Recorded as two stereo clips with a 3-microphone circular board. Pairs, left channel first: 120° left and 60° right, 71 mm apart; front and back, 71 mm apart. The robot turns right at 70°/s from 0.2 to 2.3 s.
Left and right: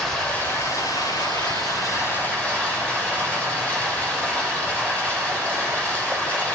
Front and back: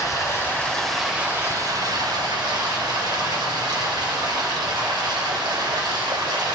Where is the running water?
40° left, 3.5 m; by 6.5 s 175° right, 3.5 m.